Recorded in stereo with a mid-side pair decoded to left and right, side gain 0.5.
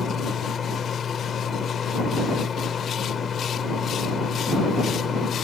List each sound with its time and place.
0.0 s a fan: 40° left